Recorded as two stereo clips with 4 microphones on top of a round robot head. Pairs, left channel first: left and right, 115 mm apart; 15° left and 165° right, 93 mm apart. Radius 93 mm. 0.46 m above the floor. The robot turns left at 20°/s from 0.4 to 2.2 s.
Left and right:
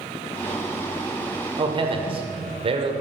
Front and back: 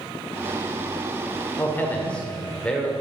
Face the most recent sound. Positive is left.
turn(degrees=-65)